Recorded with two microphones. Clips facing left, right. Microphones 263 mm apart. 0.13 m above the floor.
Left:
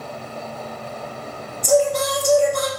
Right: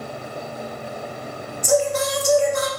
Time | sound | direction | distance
1.6 | singing | 40° left (ahead or behind) | 1.5 m